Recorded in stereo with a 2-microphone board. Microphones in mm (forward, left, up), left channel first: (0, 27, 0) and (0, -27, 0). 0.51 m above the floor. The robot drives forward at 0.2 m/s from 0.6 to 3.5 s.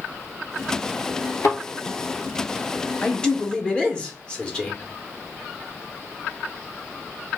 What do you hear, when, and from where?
1.4 s a thud: 75° left (ahead or behind), 1.4 m
3.0 s a man speaking: 15° left (ahead or behind), 0.6 m